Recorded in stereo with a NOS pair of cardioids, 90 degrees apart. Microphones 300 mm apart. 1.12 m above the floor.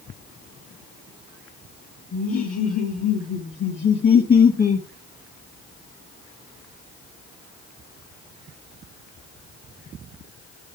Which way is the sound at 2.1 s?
50° left.